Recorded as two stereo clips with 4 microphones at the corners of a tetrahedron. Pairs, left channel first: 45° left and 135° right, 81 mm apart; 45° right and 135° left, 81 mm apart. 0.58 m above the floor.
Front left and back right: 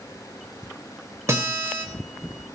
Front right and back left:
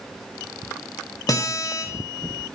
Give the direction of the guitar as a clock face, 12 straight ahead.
3 o'clock.